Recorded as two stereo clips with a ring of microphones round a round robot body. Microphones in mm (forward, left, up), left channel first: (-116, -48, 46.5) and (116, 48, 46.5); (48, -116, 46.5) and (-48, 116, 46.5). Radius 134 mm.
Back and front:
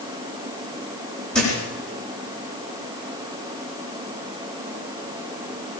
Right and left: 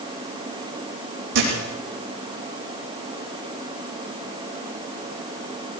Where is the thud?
115° left, 9.5 m.